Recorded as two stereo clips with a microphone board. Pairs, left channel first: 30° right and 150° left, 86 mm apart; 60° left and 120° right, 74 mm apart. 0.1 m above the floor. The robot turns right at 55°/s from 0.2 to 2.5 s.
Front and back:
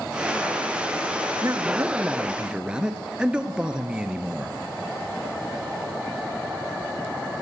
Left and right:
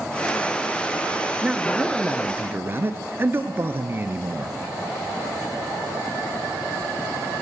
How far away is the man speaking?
About 1.3 m.